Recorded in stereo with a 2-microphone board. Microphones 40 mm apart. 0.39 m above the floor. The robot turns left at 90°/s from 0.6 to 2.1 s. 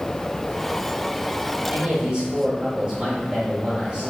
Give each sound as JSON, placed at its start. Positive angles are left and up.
{"t": 1.7, "sound": "a man speaking", "side_deg": -25, "distance_m": 1.3}